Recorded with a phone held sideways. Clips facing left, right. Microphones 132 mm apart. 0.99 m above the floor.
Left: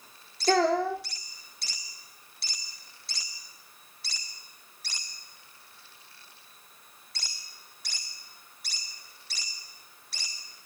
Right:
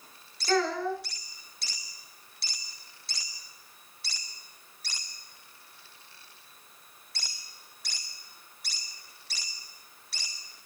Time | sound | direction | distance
0.5 | a child speaking | 70° left (ahead or behind) | 1.0 m